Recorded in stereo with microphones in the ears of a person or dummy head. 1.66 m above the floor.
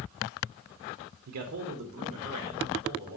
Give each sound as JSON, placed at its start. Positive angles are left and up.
{"t": 1.3, "sound": "a man speaking", "side_deg": -55, "distance_m": 0.5}